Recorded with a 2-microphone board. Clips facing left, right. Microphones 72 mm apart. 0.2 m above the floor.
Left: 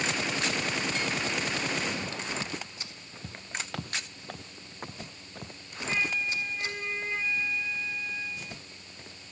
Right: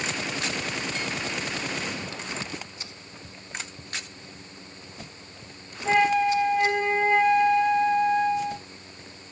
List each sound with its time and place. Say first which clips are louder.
3.2 s footsteps: left 1 dB; 45° left (ahead or behind); by 5.6 s 50° left (ahead or behind)
5.8 s a flute: right 11 dB; 80° right